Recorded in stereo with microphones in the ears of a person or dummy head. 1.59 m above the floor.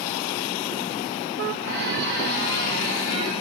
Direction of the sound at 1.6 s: 50° right (ahead or behind).